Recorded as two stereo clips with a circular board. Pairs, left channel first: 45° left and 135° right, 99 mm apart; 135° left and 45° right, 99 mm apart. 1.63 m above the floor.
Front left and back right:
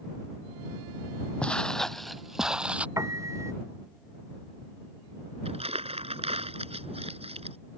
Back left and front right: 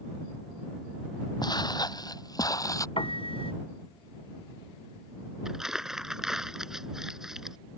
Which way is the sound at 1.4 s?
120° left.